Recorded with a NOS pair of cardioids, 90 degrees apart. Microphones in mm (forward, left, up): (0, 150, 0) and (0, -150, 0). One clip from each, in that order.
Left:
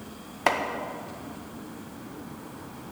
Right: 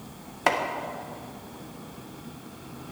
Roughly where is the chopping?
Ahead.